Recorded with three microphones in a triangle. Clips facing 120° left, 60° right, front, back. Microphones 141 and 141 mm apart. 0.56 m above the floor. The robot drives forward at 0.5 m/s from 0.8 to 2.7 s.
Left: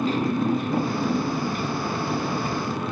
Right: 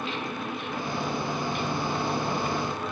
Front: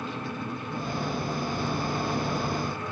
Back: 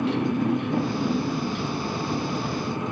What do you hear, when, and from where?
0.0 s a motorcycle: 170° left